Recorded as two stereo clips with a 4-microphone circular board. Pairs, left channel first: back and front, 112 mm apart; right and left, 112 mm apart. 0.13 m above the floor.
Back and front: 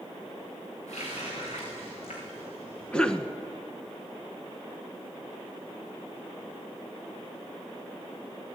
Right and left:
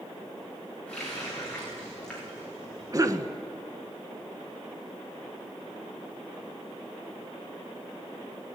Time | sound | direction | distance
0.9 | a running tap | 170° right | 7.5 m
2.9 | a cough | 105° left | 1.4 m